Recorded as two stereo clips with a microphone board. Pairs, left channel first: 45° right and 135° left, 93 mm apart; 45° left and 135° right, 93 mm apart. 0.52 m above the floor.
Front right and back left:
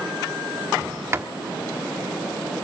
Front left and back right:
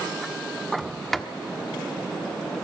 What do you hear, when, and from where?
0.8 s a sliding door: 125° left, 1.2 m